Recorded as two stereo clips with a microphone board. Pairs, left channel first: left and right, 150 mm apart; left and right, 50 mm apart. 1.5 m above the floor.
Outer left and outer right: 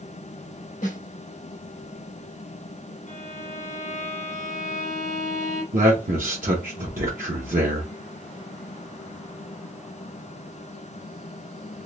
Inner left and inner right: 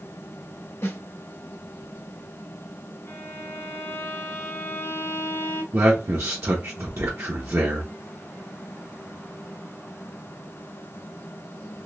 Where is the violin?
55° left (ahead or behind), 0.9 m.